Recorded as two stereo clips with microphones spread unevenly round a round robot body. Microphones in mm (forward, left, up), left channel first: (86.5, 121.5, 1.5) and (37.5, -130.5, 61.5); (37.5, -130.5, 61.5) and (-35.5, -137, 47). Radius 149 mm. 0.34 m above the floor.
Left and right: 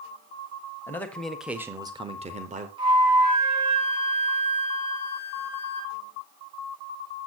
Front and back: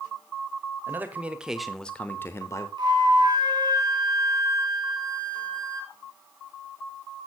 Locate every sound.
0.9 s a man speaking: 145° left, 1.5 m; by 2.7 s 35° right, 1.3 m
2.8 s a flute: straight behind, 4 m